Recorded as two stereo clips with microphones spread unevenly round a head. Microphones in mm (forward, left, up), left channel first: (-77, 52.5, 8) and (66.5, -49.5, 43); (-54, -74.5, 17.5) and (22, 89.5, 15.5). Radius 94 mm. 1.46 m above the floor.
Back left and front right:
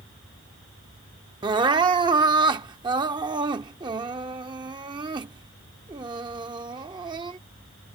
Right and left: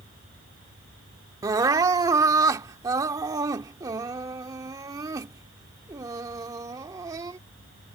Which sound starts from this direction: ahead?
Crying, at 1.4 s.